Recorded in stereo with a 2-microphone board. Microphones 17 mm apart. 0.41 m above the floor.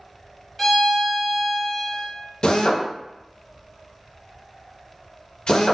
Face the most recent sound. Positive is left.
turn(degrees=50)  # may be behind; listen again after turning